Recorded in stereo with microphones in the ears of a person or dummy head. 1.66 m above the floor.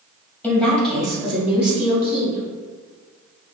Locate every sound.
0.4 s a woman speaking: 5° left (ahead or behind), 1.9 m; by 2.5 s 10° right (ahead or behind), 3 m